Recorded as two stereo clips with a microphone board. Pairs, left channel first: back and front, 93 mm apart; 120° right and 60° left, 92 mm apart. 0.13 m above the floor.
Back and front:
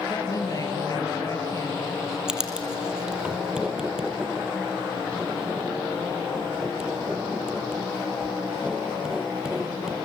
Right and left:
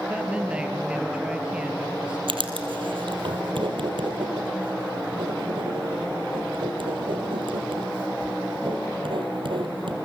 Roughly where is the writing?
Left.